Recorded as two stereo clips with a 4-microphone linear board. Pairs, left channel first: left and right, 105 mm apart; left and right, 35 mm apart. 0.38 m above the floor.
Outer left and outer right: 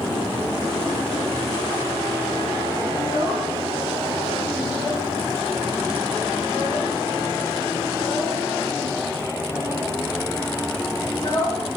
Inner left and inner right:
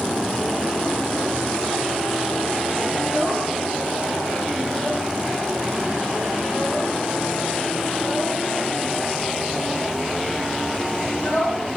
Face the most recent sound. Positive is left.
turn(degrees=50)  # may be behind; listen again after turning